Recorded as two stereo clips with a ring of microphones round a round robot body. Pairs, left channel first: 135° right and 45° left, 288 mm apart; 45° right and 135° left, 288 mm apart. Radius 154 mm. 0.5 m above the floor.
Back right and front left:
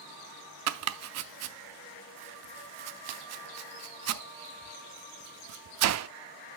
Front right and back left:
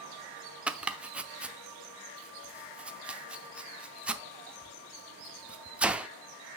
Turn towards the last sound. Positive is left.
turn(degrees=50)